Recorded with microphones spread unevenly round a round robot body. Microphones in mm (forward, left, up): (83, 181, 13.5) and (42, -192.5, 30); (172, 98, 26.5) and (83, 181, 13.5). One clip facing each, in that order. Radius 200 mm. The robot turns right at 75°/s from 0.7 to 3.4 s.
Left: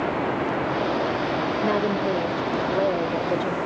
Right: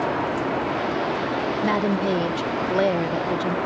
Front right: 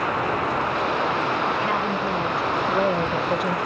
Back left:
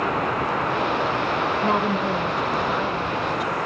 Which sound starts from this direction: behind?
A woman speaking, at 1.6 s.